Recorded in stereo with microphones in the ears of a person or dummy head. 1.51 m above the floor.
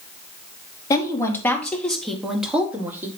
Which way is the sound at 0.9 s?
25° left (ahead or behind).